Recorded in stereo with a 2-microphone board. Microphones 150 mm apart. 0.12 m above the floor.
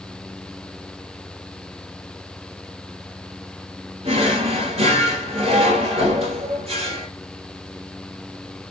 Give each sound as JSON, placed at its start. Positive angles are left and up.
{"t": 4.0, "sound": "a drawer", "side_deg": -40, "distance_m": 1.4}